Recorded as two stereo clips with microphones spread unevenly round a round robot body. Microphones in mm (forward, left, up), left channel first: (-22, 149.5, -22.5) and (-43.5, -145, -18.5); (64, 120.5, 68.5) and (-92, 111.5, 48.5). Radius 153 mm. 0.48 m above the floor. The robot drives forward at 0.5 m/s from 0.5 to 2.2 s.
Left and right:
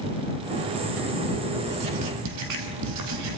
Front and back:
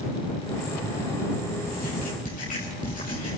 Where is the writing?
50° right, 2.5 m; by 3.4 s 55° right, 2.5 m.